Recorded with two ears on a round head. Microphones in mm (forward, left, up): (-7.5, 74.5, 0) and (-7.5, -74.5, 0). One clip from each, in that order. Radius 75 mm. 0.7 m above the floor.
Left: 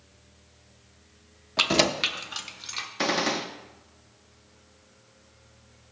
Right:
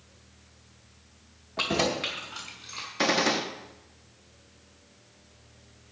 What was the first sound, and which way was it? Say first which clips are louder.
Keys jangling: left 5 dB; 75° left (ahead or behind).